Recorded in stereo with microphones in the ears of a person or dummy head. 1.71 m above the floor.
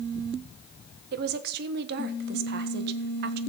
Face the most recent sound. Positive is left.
turn(degrees=-55)  # may be behind; listen again after turning